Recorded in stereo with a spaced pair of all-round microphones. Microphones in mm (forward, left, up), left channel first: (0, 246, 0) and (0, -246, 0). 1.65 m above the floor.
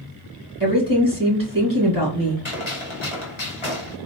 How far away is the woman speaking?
About 2.5 m.